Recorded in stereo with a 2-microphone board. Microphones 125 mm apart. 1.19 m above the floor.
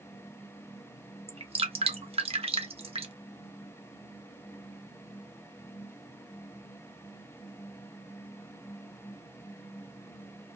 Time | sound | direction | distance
1.3 | dripping | 50° right (ahead or behind) | 0.5 m